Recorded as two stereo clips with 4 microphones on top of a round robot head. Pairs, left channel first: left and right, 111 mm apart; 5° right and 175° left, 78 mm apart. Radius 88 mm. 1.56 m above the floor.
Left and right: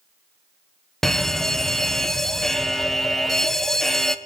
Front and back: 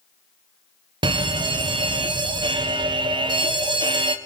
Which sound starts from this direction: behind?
A fire alarm, at 1.0 s.